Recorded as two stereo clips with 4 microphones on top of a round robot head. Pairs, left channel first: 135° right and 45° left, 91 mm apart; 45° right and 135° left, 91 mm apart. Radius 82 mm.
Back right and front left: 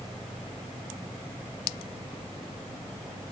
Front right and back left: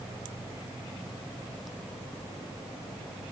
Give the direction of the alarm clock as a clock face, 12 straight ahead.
I don't hear an alarm clock.